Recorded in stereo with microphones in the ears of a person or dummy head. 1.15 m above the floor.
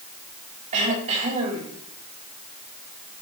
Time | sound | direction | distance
0.7 | throat clearing | 40° right (ahead or behind) | 3.5 m